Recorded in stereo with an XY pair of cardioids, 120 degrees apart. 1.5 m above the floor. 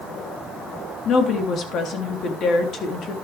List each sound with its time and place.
1.1 s a woman speaking: 55° left, 3.5 m